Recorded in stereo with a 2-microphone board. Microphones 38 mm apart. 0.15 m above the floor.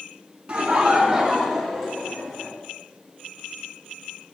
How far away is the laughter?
About 1.8 m.